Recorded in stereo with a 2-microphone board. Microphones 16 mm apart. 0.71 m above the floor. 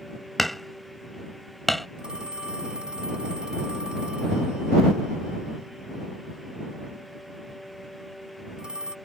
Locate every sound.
0.4 s hammering: 15° left (ahead or behind)
2.0 s a phone ringing: 70° right (ahead or behind)